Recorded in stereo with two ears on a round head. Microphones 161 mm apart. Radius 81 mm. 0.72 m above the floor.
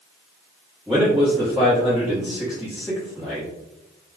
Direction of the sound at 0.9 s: 5° right (ahead or behind).